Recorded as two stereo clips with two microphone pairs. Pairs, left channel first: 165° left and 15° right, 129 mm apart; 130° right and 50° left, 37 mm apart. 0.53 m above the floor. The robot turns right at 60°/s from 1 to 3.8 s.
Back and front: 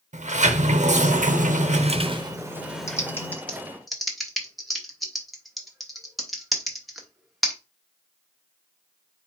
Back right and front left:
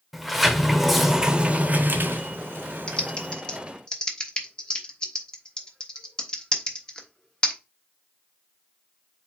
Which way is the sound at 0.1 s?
35° right.